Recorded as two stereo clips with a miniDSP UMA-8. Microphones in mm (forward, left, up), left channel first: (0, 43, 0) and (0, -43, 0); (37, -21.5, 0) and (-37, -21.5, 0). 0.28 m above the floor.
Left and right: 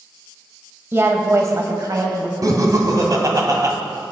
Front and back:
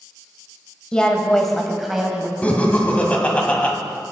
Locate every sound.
0.9 s a woman speaking: 65° right, 1.1 m; by 2.3 s 100° right, 1.5 m
2.4 s laughter: 65° right, 1.5 m